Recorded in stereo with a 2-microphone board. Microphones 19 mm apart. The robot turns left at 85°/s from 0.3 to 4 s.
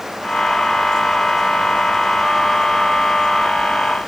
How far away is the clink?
I don't hear a clink.